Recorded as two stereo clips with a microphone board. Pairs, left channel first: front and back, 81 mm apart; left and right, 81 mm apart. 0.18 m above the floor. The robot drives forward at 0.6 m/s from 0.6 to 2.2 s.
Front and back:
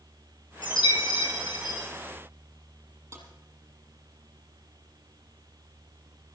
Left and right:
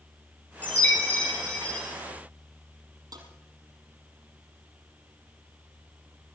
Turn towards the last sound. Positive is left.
turn(degrees=-125)